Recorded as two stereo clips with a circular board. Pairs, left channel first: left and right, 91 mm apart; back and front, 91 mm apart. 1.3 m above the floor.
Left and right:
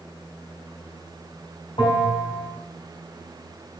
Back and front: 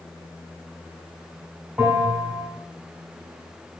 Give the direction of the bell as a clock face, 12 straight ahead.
10 o'clock.